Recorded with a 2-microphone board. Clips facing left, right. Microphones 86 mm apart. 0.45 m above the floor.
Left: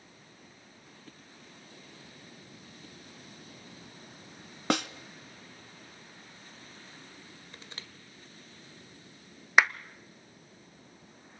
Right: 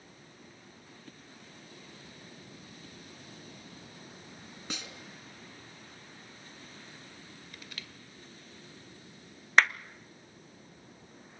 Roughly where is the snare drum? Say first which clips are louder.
Left 15 dB; left.